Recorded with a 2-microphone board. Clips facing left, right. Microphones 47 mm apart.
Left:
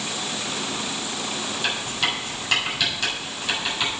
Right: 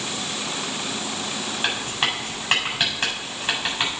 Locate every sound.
1.6 s writing: 35° right (ahead or behind), 4 m